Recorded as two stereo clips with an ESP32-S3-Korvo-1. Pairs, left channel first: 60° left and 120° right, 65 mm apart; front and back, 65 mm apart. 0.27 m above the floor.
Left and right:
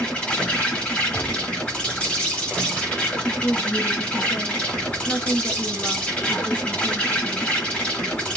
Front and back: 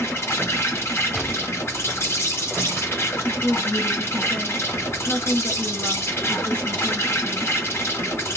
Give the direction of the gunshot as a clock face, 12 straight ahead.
9 o'clock.